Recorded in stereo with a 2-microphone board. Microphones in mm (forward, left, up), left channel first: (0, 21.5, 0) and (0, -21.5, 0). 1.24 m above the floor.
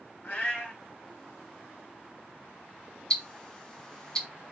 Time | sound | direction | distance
0.2 | a cat meowing | 40° left (ahead or behind) | 1.5 m
3.1 | ticking | 15° left (ahead or behind) | 0.5 m